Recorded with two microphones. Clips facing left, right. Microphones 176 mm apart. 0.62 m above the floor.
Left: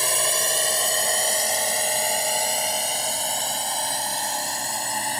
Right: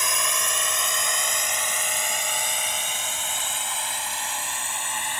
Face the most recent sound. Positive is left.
turn(degrees=35)  # may be behind; listen again after turning